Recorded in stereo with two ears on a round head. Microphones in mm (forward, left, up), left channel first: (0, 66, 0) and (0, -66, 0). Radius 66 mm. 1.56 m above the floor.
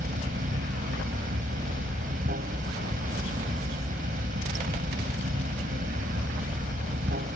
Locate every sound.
0.0 s running water: 60° right (ahead or behind)